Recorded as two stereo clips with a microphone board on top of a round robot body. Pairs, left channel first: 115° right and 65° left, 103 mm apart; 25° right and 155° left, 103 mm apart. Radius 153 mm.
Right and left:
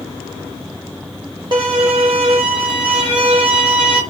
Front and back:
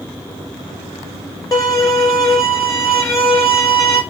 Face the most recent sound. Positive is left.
turn(degrees=35)